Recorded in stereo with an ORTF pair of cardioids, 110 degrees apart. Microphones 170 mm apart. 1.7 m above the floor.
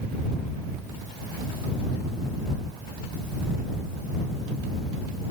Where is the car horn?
No car horn in this recording.